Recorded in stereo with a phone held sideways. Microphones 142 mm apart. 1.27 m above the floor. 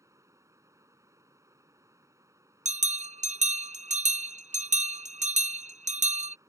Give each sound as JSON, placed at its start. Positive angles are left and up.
{"t": 0.0, "sound": "running water", "side_deg": -20}
{"t": 2.6, "sound": "a bell", "side_deg": -55}